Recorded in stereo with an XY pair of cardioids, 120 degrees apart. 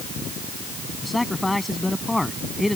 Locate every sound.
1.0 s a man speaking: 10° left